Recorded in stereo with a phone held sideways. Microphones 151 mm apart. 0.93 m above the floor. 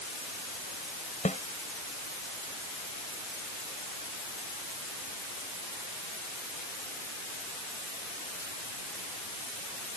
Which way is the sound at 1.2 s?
55° left (ahead or behind).